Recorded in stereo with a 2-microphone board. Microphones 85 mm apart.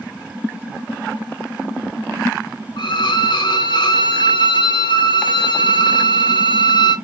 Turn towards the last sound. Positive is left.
turn(degrees=70)  # may be behind; listen again after turning